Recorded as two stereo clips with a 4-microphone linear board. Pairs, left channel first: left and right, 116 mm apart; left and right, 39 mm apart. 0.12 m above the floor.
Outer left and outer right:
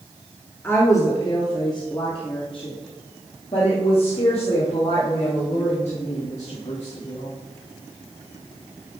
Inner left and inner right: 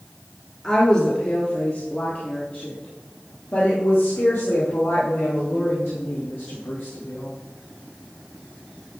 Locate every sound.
0.6 s a woman speaking: 20° left (ahead or behind), 1.7 m; by 7.3 s 70° left (ahead or behind), 5.5 m